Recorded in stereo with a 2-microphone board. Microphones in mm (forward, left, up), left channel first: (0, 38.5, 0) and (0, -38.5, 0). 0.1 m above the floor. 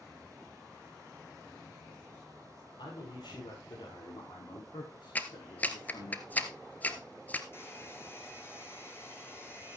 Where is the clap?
20° left (ahead or behind), 1.3 m.